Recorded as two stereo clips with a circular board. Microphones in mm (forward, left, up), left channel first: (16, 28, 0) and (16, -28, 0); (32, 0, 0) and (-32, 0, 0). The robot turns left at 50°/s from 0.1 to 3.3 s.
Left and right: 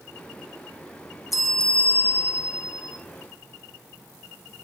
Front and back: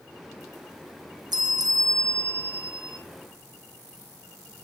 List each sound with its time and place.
1.3 s a bell: 175° right, 1.3 m; by 3.0 s 100° left, 1.3 m